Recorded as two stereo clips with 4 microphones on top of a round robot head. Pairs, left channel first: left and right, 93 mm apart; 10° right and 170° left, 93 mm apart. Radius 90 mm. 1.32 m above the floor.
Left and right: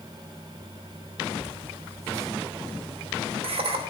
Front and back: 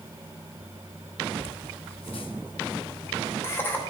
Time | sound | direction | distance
1.4 | laughter | 5° right | 1.2 m